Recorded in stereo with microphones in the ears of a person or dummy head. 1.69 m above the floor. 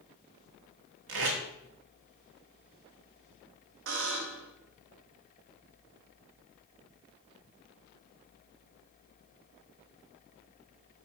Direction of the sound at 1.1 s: 65° right (ahead or behind).